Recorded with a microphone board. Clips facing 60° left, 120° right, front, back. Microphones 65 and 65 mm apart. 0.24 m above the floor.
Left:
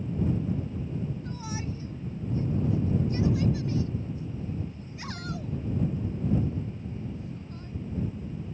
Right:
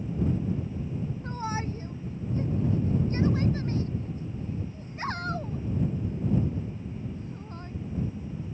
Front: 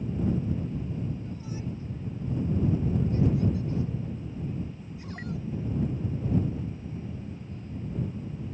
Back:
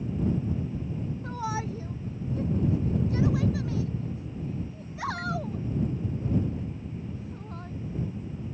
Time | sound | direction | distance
1.2 | a shout | 175° right | ?